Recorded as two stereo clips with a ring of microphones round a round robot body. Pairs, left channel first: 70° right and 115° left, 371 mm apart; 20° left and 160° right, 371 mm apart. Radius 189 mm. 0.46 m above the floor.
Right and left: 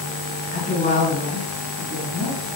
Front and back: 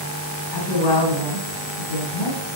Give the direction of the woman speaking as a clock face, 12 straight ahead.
12 o'clock.